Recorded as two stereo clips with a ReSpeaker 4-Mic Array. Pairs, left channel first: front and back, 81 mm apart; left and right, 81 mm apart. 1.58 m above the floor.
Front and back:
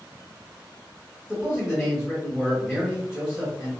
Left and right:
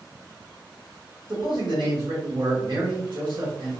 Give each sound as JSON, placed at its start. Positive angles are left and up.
{"t": 1.3, "sound": "a man speaking", "azimuth_deg": -95, "distance_m": 1.7}